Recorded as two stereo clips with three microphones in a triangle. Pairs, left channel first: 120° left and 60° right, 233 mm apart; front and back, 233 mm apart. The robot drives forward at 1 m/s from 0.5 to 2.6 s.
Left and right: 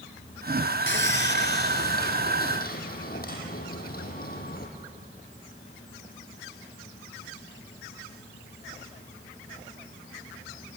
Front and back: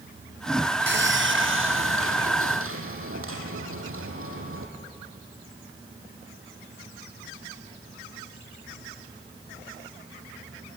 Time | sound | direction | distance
0.9 | sawing | 150° left | 1.5 m